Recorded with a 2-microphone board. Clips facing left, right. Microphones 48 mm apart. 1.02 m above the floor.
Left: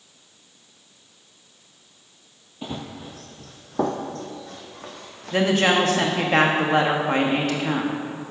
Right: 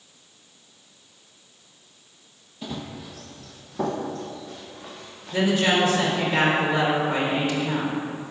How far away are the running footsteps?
About 1.1 m.